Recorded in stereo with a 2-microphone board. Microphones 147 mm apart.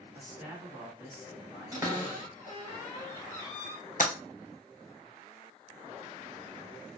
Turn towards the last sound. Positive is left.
turn(degrees=70)  # may be behind; listen again after turning